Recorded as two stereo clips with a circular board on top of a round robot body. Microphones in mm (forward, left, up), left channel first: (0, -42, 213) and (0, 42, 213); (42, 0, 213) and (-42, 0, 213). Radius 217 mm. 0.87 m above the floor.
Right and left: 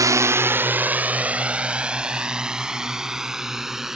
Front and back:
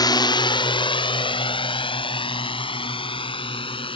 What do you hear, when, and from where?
0.0 s a drone: 40° left; by 4.0 s 5° left